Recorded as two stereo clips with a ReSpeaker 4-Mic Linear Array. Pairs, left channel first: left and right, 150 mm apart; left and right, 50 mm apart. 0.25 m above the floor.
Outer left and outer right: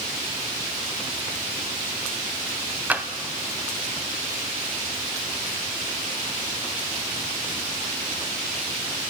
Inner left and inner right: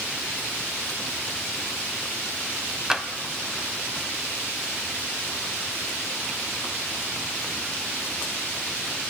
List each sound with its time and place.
2.9 s tapping: 10° right (ahead or behind), 0.9 m